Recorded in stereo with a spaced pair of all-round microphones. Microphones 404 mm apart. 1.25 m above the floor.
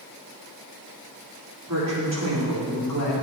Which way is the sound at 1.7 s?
35° right (ahead or behind).